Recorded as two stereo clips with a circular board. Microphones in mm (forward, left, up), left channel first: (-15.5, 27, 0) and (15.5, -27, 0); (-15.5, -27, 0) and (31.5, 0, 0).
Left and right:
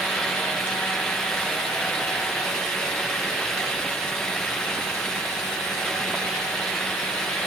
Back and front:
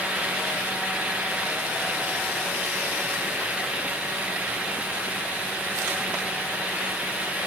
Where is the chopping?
I don't hear chopping.